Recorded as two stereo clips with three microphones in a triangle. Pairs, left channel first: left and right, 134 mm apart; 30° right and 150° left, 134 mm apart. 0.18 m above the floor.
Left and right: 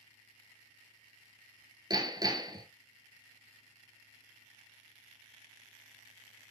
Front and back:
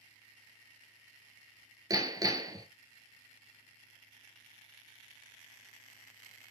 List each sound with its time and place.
1.9 s hammering: 145° right, 1.5 m